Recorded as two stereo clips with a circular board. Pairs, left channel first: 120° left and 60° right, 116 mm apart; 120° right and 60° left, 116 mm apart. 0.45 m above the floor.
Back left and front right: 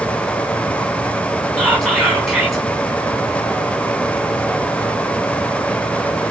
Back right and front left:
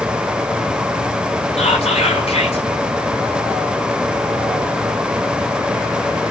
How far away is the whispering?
About 4 m.